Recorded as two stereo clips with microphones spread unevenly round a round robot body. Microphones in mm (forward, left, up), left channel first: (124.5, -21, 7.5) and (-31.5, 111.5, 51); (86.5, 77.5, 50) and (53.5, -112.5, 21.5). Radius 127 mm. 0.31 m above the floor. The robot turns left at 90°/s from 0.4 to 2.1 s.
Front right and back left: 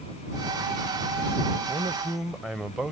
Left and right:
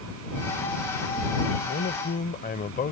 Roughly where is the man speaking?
Left.